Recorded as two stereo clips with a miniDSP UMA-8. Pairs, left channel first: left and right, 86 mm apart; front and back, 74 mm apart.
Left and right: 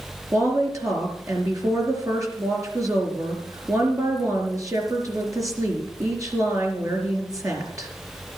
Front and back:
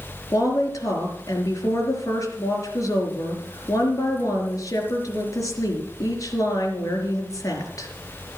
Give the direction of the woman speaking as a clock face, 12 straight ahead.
1 o'clock.